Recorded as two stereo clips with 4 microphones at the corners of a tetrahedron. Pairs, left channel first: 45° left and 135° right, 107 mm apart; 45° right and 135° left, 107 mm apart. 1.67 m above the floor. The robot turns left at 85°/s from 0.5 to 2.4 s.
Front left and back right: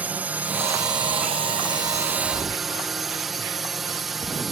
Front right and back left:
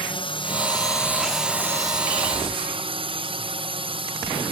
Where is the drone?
65° right; by 4.5 s 135° left.